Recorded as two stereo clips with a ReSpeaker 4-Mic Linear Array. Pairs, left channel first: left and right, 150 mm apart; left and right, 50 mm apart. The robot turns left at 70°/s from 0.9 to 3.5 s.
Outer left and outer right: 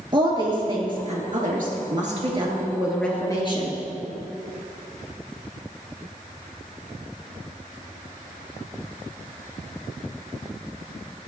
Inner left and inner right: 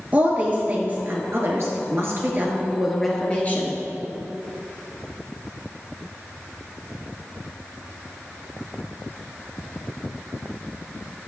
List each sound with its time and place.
0.1 s a woman speaking: 35° right, 2.5 m; by 3.8 s 140° left, 2.5 m